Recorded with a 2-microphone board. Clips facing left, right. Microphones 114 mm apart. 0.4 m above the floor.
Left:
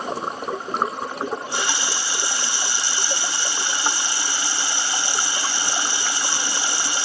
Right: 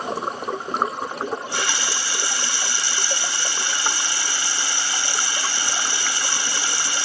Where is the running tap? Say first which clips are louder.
Left 1 dB; 20° left (ahead or behind), 1.5 m.